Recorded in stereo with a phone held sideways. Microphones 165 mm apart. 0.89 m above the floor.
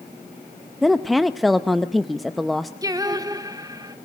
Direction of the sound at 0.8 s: Centre (ahead or behind).